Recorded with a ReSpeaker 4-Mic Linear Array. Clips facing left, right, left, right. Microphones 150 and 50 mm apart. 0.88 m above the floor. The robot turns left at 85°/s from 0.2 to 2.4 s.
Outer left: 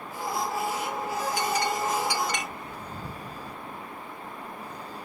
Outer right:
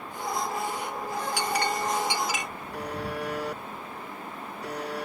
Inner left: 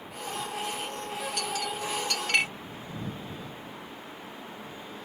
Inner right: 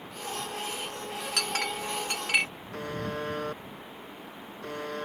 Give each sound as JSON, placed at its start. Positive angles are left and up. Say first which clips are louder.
{"t": 1.4, "sound": "a clink", "louder": "even, inner right 4 dB", "side_deg": -85}
{"t": 2.7, "sound": "a buzzer", "louder": "outer right 6 dB, inner right 5 dB", "side_deg": -80}